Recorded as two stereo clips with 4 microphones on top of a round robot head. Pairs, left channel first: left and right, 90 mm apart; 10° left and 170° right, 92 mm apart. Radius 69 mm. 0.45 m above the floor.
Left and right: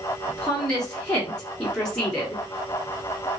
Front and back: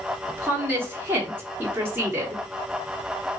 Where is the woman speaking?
155° left, 1.1 m.